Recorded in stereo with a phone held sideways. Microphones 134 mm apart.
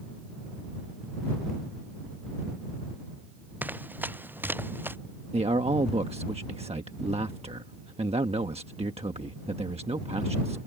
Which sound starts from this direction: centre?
Running footsteps, at 3.6 s.